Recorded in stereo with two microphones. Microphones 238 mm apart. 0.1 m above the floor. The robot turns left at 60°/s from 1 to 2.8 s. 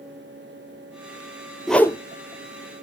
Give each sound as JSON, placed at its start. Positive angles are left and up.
{"t": 1.7, "sound": "a whoosh", "side_deg": 0, "distance_m": 0.6}